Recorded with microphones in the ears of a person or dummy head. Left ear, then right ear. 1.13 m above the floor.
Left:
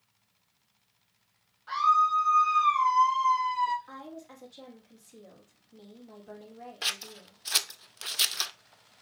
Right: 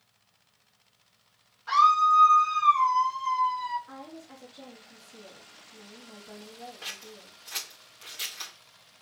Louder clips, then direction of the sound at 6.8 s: Left 9 dB; 40° left (ahead or behind).